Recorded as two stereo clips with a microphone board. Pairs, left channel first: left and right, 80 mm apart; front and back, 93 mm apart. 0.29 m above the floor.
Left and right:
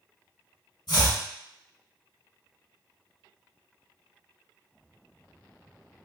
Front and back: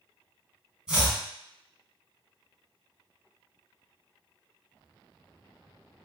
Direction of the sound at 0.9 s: 95° left.